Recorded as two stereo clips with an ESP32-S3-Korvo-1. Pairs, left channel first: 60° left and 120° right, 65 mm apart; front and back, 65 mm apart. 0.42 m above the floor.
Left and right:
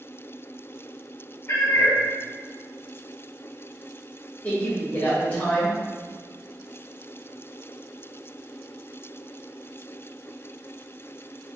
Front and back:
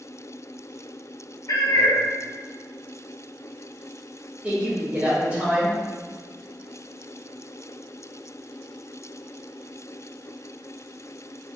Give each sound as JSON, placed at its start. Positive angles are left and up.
{"t": 1.5, "sound": "a cat meowing", "azimuth_deg": 20, "distance_m": 0.7}
{"t": 4.4, "sound": "a woman speaking", "azimuth_deg": 115, "distance_m": 1.1}